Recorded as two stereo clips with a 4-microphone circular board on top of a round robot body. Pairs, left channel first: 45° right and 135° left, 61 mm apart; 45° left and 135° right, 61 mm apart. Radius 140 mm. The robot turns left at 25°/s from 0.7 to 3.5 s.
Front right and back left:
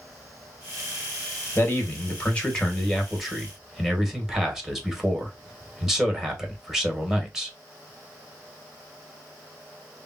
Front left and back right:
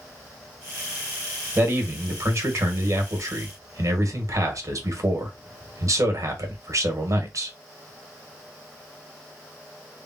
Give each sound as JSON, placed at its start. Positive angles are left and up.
{"t": 1.6, "sound": "a man speaking", "azimuth_deg": -95, "distance_m": 1.5}